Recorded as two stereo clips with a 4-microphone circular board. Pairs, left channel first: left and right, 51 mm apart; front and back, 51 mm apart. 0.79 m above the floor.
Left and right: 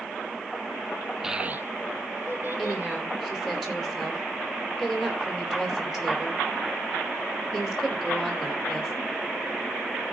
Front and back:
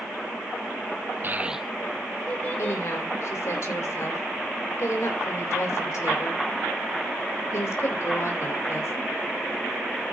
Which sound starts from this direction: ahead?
A woman speaking, at 2.6 s.